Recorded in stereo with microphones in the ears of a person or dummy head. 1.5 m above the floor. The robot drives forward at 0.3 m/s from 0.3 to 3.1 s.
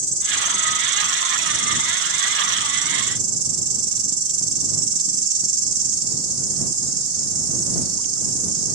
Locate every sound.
0.0 s an insect: 40° right (ahead or behind), 1.5 m; by 8.8 s 65° right (ahead or behind), 1.1 m